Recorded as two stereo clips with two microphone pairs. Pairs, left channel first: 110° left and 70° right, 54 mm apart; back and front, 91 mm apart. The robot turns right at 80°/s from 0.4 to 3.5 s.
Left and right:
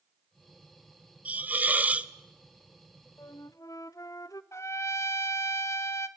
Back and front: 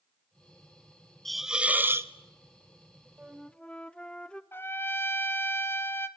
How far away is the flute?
About 0.5 m.